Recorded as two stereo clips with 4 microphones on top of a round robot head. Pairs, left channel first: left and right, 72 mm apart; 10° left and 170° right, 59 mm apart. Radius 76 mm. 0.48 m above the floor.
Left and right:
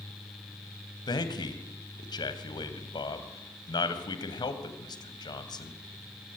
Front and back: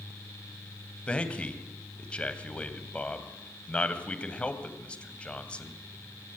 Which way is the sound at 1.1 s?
80° left.